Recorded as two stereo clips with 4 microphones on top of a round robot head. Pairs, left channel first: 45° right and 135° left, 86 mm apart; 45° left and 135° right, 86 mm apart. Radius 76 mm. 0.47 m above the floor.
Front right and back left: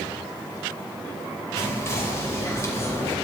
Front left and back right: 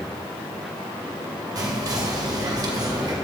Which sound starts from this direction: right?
Whispering, at 1.6 s.